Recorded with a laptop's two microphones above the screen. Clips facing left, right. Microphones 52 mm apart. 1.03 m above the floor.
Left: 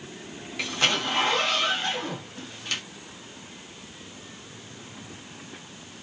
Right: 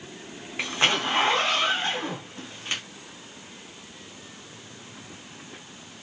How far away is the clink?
I don't hear a clink.